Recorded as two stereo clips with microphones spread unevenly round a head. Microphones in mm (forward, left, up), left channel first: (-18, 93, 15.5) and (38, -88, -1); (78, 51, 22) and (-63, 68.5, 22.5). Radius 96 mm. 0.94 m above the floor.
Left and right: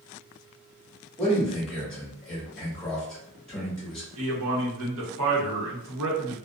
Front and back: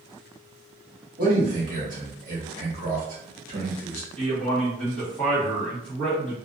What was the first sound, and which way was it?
A man speaking, 165° right.